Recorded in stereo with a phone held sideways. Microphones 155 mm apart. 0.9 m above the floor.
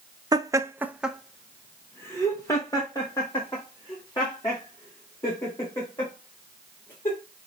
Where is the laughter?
25° right (ahead or behind), 0.6 m; by 7.2 s 30° left (ahead or behind), 3.5 m.